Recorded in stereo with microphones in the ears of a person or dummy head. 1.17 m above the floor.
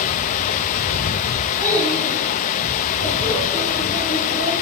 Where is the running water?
45° left (ahead or behind), 0.7 m.